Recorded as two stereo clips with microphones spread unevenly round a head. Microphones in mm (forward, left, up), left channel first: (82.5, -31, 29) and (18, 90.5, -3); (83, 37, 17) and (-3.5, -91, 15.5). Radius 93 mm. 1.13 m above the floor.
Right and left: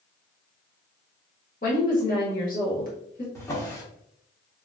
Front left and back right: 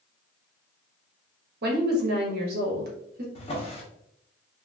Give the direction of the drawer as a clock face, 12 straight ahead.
12 o'clock.